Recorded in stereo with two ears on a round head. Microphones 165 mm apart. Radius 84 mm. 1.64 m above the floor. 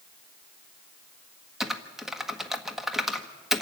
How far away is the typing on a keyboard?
About 1.0 m.